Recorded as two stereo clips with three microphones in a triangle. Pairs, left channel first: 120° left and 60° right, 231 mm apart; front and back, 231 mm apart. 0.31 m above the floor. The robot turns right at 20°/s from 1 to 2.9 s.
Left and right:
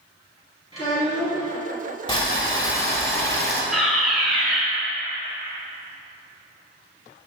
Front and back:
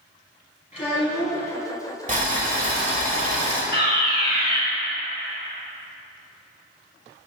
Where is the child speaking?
60° left, 2.5 m; by 1.5 s 70° left, 2.5 m.